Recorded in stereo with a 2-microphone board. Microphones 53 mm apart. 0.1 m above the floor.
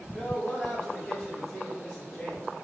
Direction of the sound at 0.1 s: 15° left (ahead or behind).